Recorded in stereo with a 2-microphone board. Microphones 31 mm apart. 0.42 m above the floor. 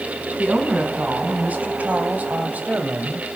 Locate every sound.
0.4 s a woman speaking: 45° right (ahead or behind), 4 m; by 3.4 s 50° right (ahead or behind), 2 m